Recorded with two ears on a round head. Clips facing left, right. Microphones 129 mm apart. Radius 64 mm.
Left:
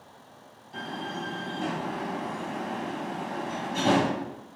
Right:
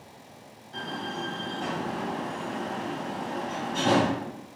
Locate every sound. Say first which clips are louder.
0.7 s a door slam: right 1 dB; 10° left (ahead or behind), 4 m